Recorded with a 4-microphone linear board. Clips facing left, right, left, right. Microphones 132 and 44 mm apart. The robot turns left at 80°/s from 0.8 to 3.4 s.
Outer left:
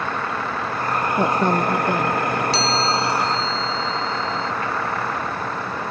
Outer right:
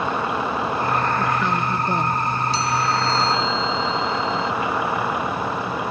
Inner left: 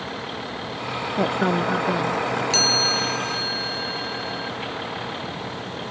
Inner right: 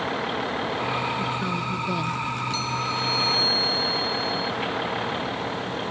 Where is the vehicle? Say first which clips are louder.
Outer right 3 dB, inner right 4 dB; 165° right; by 5.9 s 10° right.